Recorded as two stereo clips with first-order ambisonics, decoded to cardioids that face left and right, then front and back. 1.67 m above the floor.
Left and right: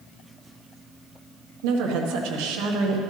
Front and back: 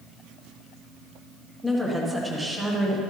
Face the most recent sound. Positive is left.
turn(degrees=-100)